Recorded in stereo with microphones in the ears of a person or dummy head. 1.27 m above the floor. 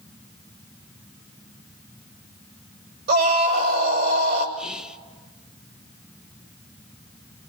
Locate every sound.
3.1 s a scream: 55° right (ahead or behind), 6.5 m
4.6 s whispering: 5° right (ahead or behind), 0.8 m